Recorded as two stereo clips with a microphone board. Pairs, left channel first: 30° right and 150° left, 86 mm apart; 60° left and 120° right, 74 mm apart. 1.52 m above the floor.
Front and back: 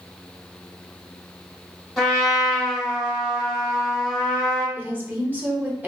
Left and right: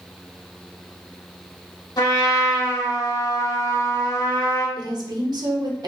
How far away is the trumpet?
About 1.3 m.